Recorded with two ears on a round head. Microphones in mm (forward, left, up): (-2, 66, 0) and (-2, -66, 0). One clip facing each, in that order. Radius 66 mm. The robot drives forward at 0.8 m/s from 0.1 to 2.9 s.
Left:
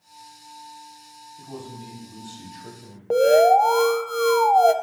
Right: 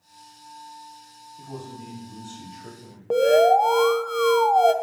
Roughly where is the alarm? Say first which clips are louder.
Left 1 dB; centre.